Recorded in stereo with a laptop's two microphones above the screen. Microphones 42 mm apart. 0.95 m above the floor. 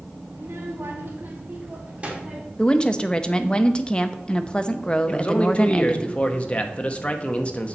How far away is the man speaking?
About 0.8 m.